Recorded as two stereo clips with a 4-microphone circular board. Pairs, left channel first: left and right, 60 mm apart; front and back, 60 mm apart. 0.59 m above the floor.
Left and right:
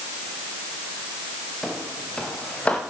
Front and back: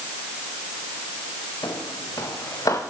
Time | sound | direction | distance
1.6 | footsteps | 10° left | 3 m